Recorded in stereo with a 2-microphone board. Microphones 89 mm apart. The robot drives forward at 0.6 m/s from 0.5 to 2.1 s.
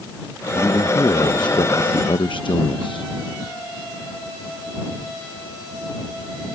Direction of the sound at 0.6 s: 35° left (ahead or behind).